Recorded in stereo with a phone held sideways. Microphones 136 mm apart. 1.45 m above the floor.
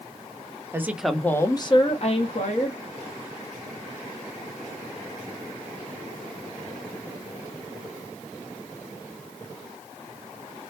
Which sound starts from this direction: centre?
A woman speaking, at 0.7 s.